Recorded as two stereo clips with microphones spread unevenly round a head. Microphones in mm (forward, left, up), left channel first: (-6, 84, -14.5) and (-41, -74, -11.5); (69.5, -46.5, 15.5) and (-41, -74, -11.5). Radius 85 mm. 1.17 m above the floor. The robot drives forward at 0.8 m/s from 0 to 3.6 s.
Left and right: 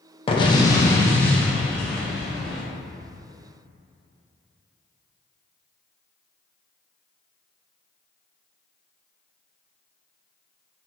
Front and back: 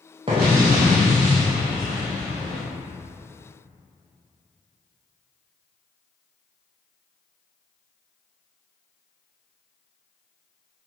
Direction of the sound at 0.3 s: 135° left.